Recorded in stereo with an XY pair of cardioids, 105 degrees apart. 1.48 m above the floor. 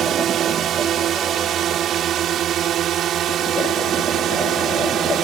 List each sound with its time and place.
0.0 s a drone: 65° right; by 5.2 s 70° right